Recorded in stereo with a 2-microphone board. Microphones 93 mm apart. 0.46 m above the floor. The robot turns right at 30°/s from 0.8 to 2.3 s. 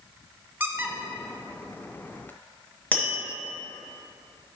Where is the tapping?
15° left (ahead or behind), 1.7 m.